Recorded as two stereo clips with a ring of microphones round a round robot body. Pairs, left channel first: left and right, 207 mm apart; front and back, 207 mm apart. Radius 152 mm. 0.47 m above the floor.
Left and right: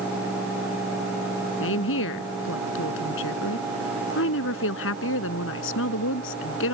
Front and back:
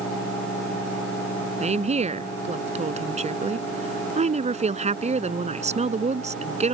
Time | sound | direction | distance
1.6 | a woman speaking | 125° left | ?